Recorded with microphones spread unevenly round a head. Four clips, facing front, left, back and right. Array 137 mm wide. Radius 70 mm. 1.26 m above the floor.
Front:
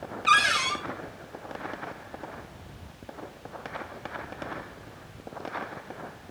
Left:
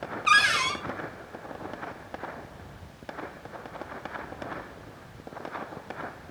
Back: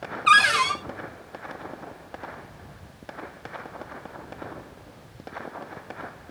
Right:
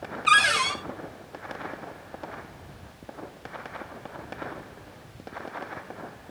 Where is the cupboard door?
175° right, 4 m.